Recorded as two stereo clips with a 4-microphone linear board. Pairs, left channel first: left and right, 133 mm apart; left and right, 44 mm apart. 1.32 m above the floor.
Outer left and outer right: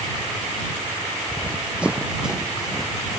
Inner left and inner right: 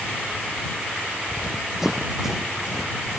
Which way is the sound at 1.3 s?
10° right (ahead or behind).